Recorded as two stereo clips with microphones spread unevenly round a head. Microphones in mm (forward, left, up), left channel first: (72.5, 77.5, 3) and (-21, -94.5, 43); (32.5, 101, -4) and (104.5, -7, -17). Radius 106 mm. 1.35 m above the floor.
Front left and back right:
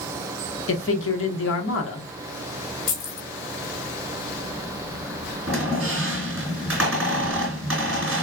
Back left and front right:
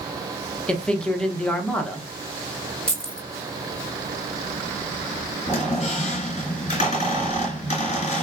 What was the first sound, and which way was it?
A man speaking, 40° left.